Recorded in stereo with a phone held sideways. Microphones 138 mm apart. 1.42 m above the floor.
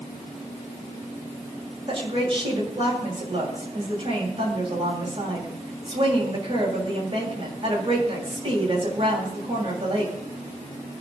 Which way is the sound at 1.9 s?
45° right (ahead or behind).